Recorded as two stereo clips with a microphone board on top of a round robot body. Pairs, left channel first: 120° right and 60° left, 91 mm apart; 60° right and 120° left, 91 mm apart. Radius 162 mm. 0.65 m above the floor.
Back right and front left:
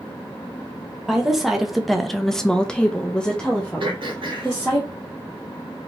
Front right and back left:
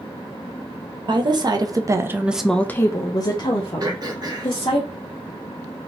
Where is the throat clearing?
75° left, 1.3 m.